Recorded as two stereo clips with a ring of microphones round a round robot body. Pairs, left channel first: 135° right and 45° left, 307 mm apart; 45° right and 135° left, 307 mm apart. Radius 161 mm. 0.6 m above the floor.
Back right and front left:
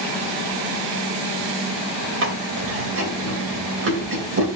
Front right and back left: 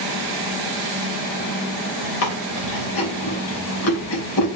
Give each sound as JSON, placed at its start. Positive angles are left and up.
{"t": 2.2, "sound": "chewing", "azimuth_deg": 0, "distance_m": 3.0}